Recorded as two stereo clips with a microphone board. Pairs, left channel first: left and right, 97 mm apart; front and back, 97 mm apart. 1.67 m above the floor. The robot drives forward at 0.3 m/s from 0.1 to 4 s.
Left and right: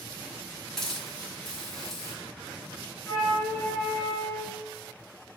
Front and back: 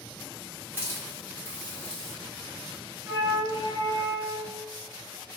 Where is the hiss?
10° left, 1.3 m; by 2.1 s 40° left, 1.2 m.